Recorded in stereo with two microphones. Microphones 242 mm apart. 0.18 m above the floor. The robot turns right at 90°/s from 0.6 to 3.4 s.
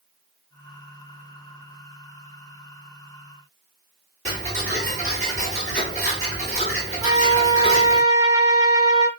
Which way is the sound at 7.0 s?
15° right (ahead or behind).